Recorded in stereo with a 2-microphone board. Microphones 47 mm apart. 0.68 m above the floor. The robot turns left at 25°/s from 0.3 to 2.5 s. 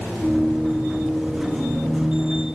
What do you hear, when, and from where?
Only background noise.